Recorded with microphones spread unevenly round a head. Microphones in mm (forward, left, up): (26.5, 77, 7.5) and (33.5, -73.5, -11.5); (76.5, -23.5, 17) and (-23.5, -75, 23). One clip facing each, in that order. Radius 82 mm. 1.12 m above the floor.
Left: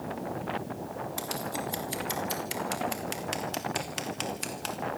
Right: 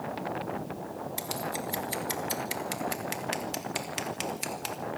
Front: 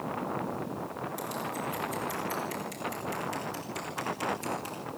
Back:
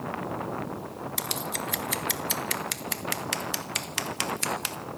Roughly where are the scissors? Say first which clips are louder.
Right 1 dB, back 1 dB; behind.